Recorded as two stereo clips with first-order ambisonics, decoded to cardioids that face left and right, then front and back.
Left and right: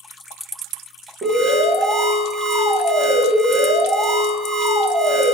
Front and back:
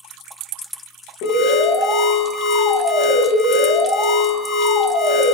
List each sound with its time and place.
1.2 s an alarm: 30° right, 2.5 m